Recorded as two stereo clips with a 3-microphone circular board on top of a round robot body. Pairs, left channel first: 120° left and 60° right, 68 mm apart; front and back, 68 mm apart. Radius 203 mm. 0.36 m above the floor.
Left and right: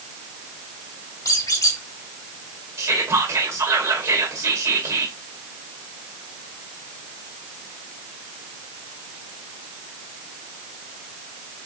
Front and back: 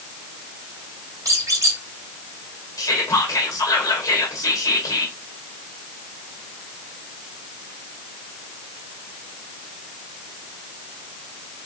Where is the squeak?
140° left, 2 m.